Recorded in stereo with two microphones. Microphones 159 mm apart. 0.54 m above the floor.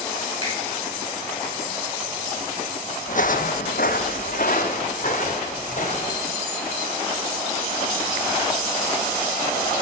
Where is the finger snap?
30° left (ahead or behind), 6.5 m.